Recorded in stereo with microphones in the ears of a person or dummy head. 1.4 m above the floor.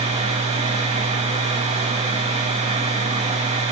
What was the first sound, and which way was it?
A machine running, 35° right (ahead or behind).